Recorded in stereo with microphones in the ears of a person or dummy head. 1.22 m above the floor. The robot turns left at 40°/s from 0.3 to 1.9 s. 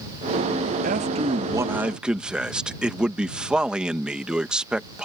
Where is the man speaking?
135° right; by 5.0 s straight behind.